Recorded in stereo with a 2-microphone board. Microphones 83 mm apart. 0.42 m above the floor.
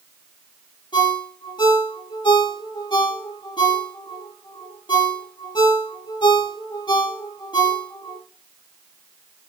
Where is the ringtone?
60° left (ahead or behind), 4.5 m.